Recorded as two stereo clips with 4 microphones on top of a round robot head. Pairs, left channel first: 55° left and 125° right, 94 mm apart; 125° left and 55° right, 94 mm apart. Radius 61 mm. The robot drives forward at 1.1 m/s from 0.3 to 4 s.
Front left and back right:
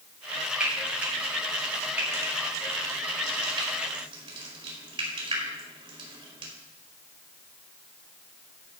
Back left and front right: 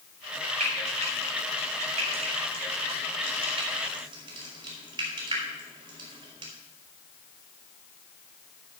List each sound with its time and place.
0.6 s frying: 50° right, 5 m; by 6.5 s 95° right, 4 m